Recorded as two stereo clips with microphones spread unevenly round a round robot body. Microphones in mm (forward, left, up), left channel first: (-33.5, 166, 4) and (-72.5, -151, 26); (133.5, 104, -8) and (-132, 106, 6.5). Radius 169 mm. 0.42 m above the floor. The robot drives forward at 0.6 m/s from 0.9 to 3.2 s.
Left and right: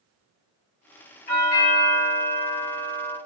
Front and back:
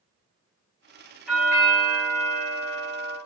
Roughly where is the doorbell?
Left.